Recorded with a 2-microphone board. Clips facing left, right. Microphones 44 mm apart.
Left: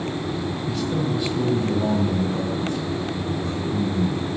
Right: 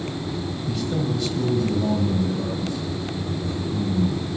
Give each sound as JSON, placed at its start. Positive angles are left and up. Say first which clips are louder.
{"t": 0.7, "sound": "a man speaking", "louder": "even", "side_deg": -5, "distance_m": 1.5}